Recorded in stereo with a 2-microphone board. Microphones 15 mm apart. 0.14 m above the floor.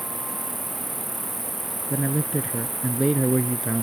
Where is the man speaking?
30° right (ahead or behind).